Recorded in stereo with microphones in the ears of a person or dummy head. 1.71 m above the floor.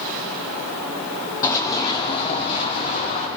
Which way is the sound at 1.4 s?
20° left (ahead or behind).